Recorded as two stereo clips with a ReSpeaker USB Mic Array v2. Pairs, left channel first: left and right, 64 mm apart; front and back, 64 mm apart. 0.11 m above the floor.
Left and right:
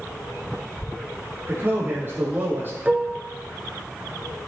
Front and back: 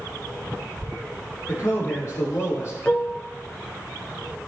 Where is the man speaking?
35° right, 4 m.